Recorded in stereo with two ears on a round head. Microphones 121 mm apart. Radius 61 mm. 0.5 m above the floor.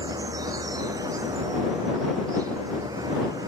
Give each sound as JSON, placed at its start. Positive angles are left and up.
{"t": 0.0, "sound": "an insect", "side_deg": -25}